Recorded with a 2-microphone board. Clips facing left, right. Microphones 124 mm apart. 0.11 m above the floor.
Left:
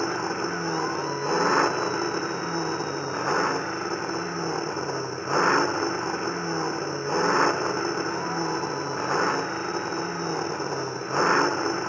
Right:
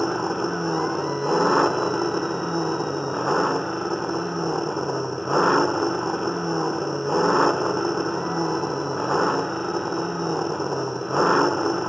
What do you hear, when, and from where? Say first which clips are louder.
0.0 s an engine running: right 4 dB; 15° right (ahead or behind)